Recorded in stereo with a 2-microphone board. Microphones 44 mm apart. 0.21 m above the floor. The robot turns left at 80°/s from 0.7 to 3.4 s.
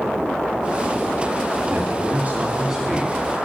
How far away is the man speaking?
About 2 m.